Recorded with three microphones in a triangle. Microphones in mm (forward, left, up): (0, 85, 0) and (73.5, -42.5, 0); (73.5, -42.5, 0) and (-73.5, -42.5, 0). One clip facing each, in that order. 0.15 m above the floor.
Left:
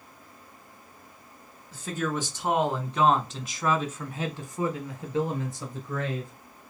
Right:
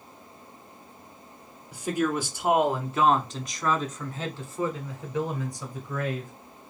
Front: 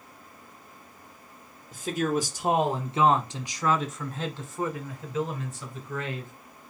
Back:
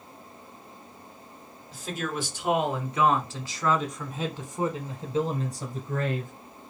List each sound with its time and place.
1.7 s a man speaking: 15° left, 1.6 m; by 6.3 s 175° left, 1.6 m